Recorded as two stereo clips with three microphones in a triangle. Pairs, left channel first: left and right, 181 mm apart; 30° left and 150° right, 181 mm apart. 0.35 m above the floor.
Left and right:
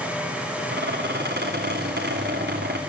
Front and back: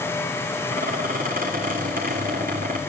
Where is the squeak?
110° right, 2.5 m.